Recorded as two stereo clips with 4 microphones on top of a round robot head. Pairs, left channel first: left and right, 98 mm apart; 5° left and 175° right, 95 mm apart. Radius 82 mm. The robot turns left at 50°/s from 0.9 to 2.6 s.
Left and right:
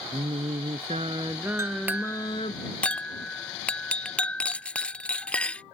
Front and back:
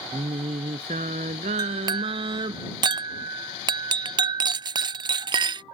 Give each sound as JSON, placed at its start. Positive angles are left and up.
{"t": 0.1, "sound": "singing", "azimuth_deg": -140}
{"t": 1.6, "sound": "a clink", "azimuth_deg": -145}